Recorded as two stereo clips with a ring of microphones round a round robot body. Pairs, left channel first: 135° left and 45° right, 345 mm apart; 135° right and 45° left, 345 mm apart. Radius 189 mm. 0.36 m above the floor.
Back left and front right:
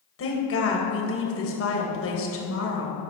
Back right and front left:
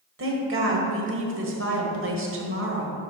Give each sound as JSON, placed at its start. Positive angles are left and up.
{"t": 0.2, "sound": "a woman speaking", "azimuth_deg": 90, "distance_m": 1.8}